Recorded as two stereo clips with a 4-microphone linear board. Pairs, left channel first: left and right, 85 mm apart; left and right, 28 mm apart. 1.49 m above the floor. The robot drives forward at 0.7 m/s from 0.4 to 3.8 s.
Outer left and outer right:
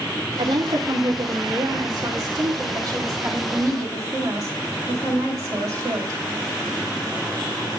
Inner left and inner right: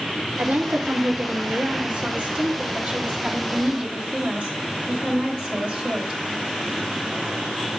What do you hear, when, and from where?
0.4 s a woman speaking: 75° right (ahead or behind), 2.5 m; by 6.2 s 40° right (ahead or behind), 4 m